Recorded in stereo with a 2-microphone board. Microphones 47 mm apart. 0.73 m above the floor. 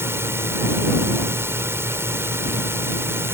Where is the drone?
65° right (ahead or behind); by 3.3 s 60° right (ahead or behind).